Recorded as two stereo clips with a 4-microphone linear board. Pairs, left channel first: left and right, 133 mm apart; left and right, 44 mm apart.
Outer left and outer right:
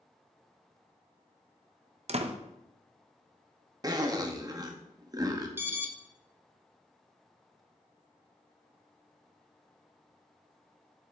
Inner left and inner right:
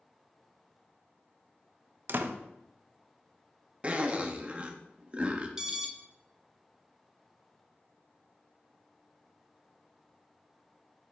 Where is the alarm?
15° right (ahead or behind), 1.0 m.